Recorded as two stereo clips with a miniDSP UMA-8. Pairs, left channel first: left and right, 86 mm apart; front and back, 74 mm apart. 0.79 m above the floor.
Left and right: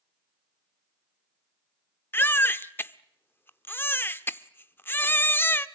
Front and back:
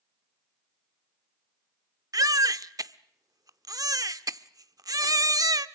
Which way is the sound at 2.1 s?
155° left.